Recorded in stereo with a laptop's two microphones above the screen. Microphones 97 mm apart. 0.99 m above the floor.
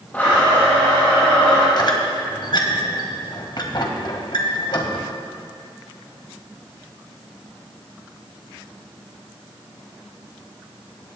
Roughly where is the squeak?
Left.